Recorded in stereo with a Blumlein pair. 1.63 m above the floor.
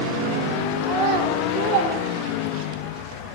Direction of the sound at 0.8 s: 40° right.